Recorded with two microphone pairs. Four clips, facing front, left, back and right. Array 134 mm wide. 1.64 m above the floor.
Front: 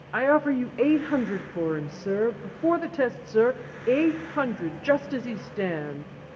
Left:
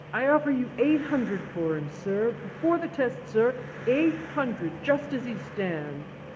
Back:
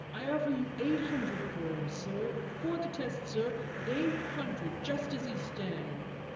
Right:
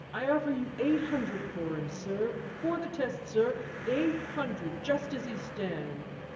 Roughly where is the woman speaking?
Ahead left.